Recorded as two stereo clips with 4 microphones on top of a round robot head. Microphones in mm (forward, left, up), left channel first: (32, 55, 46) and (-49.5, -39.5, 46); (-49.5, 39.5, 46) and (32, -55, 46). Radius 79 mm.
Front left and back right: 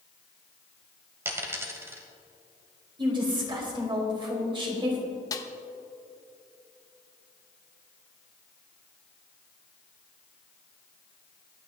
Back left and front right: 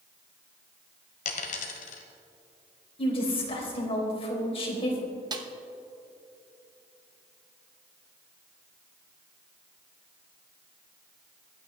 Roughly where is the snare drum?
Ahead.